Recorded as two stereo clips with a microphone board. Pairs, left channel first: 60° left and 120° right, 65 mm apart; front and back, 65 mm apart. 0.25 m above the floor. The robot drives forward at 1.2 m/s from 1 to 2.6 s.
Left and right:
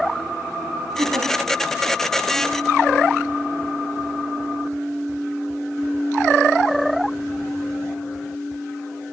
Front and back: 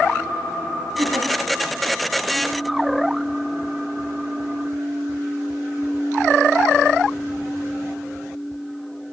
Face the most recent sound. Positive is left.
turn(degrees=-170)